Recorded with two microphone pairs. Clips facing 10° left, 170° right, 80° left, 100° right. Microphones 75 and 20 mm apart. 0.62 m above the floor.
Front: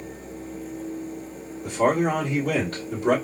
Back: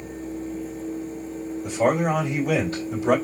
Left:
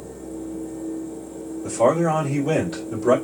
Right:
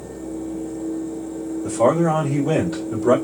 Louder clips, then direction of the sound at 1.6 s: Even, right 1 dB; 5° right.